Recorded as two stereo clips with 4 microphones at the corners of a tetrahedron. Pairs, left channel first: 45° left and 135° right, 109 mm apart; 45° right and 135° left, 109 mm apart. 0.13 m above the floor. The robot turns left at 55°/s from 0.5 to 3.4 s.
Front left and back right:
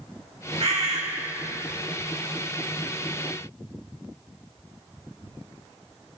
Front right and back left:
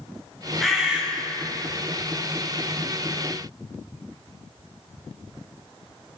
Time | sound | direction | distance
0.6 | a bird | 130° right | 3 m